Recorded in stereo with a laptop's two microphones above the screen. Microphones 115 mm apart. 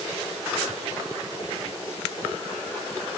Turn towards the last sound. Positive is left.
No sound to turn to.